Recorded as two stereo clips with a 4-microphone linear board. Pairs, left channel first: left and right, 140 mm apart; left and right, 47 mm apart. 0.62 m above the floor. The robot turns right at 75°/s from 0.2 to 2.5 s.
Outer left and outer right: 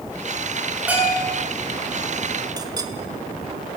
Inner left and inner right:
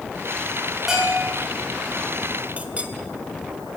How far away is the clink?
About 1.9 m.